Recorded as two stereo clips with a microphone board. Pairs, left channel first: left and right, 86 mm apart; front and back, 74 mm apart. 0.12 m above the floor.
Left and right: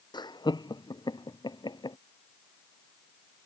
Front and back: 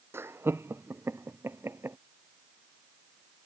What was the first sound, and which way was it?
Laughter, 125° left.